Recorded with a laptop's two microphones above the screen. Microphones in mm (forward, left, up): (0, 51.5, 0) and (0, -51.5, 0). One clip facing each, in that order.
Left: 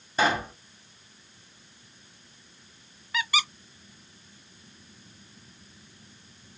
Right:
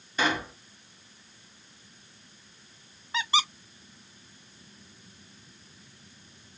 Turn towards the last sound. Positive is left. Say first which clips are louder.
# right 1 dB
turn(degrees=-25)  # may be behind; listen again after turning